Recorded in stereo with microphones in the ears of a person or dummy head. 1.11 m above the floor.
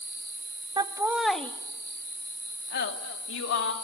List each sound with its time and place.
0.8 s laughter: 20° right (ahead or behind), 1.5 m; by 3.7 s 75° left (ahead or behind), 2.5 m